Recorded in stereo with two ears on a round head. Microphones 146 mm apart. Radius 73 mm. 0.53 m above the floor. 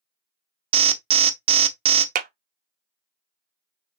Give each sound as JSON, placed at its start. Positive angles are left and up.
{"t": 0.7, "sound": "an alarm", "side_deg": -35, "distance_m": 0.8}
{"t": 2.1, "sound": "a clap", "side_deg": -55, "distance_m": 0.7}